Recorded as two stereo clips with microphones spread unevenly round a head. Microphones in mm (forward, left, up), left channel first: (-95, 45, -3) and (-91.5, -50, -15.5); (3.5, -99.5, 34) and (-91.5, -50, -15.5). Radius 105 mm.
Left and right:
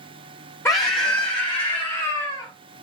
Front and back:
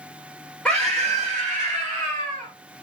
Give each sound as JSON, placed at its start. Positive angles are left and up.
{"t": 0.7, "sound": "a scream", "azimuth_deg": 35, "distance_m": 0.6}